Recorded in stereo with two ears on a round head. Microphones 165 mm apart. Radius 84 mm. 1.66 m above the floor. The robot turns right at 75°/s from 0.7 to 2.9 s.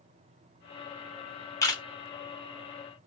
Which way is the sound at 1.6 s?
15° left (ahead or behind).